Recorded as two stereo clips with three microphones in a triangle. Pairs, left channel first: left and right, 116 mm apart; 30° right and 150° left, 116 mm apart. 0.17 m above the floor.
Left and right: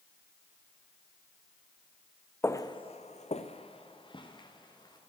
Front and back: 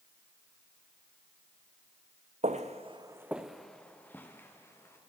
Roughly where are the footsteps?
Behind.